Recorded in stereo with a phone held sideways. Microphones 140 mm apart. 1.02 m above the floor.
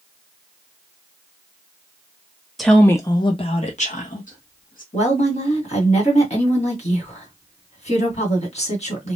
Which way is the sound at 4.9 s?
50° left (ahead or behind).